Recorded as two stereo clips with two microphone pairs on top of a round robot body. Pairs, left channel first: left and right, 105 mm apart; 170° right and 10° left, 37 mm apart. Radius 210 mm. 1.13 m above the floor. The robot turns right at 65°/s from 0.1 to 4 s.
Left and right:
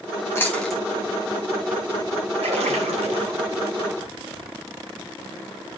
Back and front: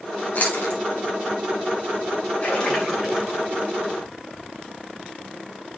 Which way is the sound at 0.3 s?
150° left.